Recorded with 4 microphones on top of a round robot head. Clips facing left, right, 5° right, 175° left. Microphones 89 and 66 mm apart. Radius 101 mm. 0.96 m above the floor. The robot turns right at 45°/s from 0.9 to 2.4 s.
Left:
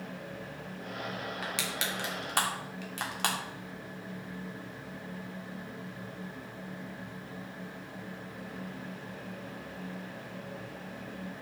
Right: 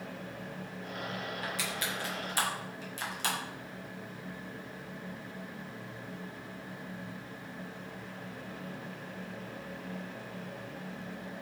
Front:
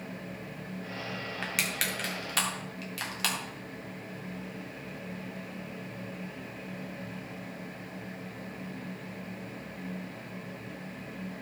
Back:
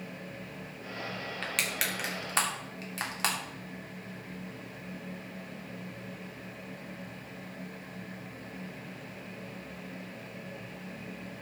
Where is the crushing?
75° left, 2.5 m; by 3.4 s 115° left, 2.5 m.